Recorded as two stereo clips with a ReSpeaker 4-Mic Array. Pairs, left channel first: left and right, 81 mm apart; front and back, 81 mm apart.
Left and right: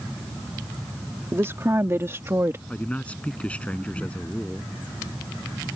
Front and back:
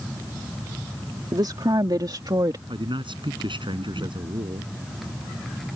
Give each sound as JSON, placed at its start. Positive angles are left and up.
{"t": 1.3, "sound": "a woman speaking", "azimuth_deg": -150}
{"t": 2.7, "sound": "a man speaking", "azimuth_deg": 165}